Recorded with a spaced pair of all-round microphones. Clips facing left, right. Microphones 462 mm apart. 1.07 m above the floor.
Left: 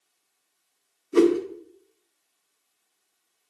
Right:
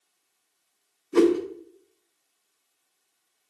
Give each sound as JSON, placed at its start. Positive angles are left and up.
{"t": 1.1, "sound": "a whoosh", "side_deg": -5, "distance_m": 1.1}